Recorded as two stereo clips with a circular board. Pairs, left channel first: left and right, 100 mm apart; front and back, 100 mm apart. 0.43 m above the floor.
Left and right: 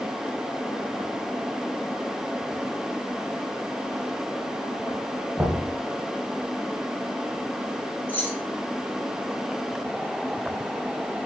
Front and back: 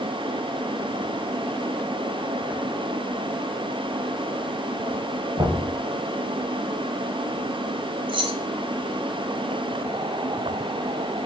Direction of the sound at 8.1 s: 160° left.